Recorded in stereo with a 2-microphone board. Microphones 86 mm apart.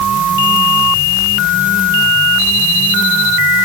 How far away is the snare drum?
No snare drum in this recording.